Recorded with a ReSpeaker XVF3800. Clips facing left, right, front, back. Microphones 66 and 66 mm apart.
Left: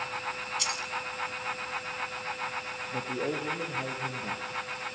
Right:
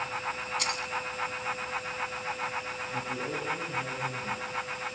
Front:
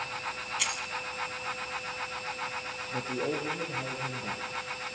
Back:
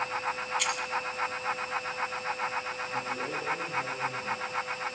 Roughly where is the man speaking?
Ahead left.